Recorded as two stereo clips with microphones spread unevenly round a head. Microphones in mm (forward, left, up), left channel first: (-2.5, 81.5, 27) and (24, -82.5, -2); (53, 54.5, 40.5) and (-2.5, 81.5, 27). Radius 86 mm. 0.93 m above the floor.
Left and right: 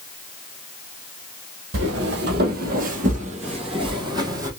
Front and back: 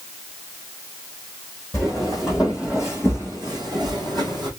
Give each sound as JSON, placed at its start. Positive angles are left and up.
{"t": 1.7, "sound": "footsteps", "azimuth_deg": -100, "distance_m": 1.6}